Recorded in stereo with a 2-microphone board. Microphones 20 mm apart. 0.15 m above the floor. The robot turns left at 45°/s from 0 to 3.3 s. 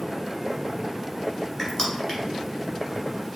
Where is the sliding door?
No sliding door in this recording.